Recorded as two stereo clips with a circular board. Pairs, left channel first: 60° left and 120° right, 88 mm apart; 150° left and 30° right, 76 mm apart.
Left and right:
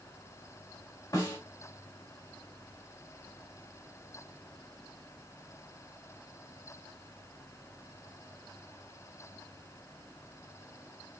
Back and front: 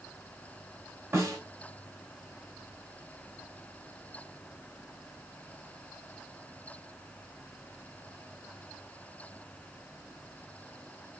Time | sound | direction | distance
1.1 | a snare drum | 15° left | 1.8 m